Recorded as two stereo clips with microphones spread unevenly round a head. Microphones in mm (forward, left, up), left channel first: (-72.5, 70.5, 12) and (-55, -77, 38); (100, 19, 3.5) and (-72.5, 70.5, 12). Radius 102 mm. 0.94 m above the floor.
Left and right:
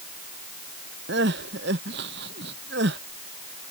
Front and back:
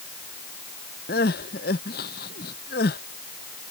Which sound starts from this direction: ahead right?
Crying, at 1.1 s.